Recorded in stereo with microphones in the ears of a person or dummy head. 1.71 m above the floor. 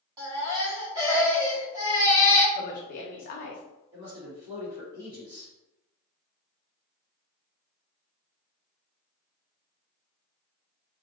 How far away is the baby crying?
About 1.4 m.